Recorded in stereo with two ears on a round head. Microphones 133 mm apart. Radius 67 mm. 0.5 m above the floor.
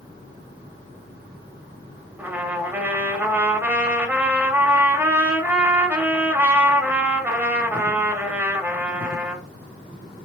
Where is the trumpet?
15° right (ahead or behind), 1.5 m.